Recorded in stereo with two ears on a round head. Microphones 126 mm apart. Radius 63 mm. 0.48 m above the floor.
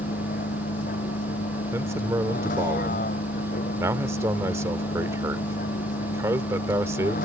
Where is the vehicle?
65° left (ahead or behind).